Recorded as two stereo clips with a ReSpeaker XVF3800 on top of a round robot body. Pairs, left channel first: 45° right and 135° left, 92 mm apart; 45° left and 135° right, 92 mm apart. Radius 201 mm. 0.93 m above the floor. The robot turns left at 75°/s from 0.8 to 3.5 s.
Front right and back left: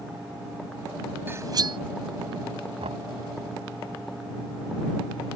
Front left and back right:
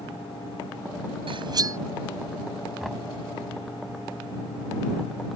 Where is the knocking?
140° left; by 3.1 s 115° left.